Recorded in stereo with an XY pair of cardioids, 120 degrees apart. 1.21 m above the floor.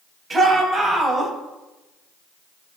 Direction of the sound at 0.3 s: 30° right.